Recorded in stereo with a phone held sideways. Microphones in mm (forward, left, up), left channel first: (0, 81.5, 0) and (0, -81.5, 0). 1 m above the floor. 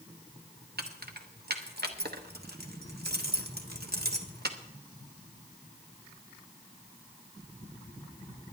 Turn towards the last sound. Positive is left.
turn(degrees=-80)